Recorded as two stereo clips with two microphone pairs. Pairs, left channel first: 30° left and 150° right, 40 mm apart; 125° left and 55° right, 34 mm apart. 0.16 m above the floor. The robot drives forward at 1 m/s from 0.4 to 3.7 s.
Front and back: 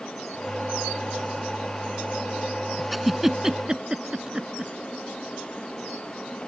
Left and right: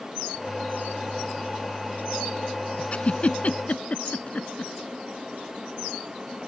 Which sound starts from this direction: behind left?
A giggle, at 2.9 s.